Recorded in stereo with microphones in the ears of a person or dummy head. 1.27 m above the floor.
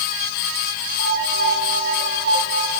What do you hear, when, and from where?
1.0 s a piano: 55° right (ahead or behind), 3 m